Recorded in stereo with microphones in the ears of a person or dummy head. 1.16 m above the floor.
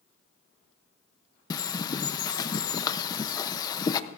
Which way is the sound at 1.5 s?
25° left (ahead or behind).